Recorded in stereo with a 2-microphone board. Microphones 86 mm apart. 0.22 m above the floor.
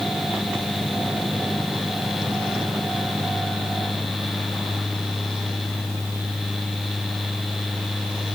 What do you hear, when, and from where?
Only background noise.